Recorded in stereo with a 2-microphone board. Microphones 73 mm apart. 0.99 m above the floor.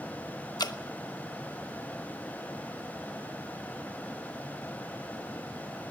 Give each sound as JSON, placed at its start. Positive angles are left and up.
{"t": 0.6, "sound": "dripping", "side_deg": 70, "distance_m": 1.1}